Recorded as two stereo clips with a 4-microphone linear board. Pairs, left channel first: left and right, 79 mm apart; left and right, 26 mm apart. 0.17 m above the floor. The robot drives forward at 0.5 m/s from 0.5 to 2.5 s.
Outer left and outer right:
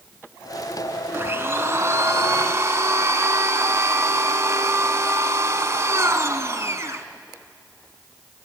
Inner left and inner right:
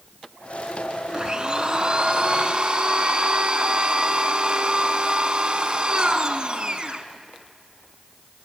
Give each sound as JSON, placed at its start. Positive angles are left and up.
{"t": 1.1, "sound": "a blender", "side_deg": -30, "distance_m": 1.1}